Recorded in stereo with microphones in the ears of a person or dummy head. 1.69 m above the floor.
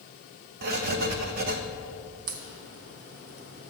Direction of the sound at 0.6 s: 50° right (ahead or behind).